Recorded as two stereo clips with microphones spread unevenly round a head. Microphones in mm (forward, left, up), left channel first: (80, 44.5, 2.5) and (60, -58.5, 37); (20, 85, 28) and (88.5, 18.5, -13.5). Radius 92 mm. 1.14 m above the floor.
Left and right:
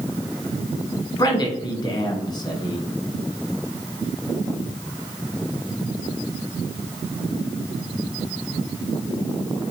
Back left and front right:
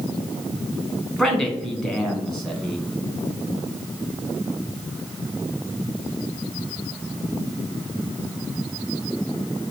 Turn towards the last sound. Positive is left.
turn(degrees=45)